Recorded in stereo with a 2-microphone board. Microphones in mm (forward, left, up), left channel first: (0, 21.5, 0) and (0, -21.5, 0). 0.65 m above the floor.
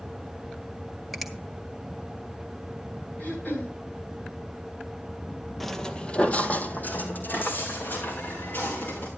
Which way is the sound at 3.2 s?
40° left (ahead or behind).